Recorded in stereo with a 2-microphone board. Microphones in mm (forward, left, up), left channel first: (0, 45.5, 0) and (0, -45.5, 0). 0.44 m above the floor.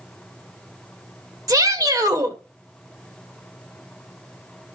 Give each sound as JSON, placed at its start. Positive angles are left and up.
{"t": 1.5, "sound": "a shout", "side_deg": -40, "distance_m": 1.2}